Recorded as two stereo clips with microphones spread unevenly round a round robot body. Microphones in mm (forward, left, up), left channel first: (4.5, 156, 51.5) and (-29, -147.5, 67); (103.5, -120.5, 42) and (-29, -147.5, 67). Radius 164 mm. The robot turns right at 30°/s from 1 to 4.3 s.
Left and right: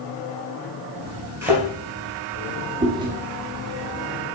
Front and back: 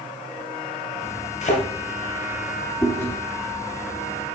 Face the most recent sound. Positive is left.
turn(degrees=10)